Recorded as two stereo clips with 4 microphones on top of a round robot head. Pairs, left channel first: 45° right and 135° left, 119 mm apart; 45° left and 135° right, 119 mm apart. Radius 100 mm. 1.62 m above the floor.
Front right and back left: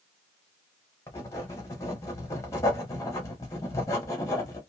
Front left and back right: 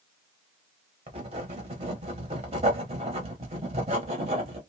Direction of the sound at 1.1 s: 110° right.